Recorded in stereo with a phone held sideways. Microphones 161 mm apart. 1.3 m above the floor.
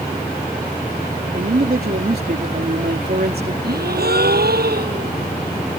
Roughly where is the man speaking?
Right.